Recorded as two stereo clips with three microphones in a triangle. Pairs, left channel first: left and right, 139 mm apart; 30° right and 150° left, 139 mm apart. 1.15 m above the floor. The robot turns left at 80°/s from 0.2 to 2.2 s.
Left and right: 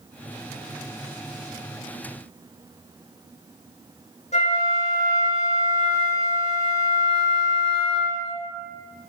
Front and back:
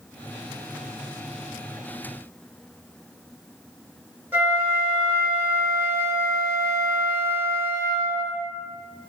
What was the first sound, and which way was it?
A flute, 80° left.